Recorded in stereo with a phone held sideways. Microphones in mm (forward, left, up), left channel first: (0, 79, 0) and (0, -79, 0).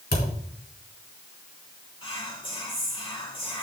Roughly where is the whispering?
Left.